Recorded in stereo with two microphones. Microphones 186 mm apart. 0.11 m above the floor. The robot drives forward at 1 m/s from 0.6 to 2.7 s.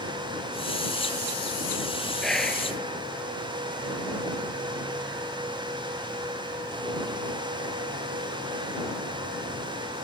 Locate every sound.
2.2 s whispering: centre (ahead or behind), 2.5 m